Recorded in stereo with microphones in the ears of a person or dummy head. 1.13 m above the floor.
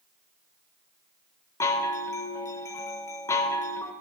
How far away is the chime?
About 0.9 m.